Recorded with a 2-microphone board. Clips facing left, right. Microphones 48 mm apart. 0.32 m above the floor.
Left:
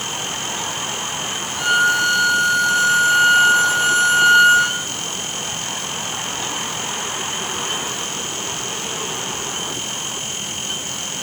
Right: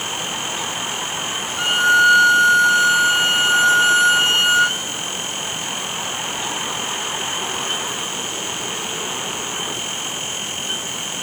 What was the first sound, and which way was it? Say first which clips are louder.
A violin: right 2 dB; 40° right (ahead or behind).